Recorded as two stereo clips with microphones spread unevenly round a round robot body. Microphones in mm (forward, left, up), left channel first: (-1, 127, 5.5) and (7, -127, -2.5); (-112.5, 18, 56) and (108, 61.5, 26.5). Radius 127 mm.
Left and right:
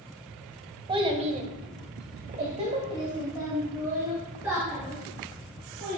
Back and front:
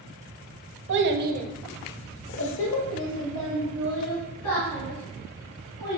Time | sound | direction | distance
0.9 | a child speaking | 15° right | 1.2 m